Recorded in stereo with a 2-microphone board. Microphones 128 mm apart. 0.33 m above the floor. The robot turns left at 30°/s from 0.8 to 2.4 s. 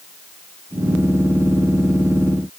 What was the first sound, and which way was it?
Only background noise.